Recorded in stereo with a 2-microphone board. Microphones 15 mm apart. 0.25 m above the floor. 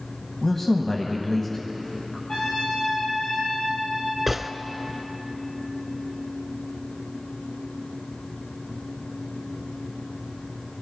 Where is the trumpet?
75° left (ahead or behind), 5 m.